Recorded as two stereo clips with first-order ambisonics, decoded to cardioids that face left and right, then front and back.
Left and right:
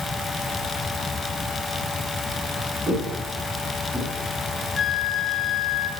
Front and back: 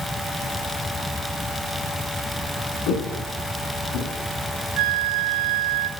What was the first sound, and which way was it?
Footsteps, 20° right.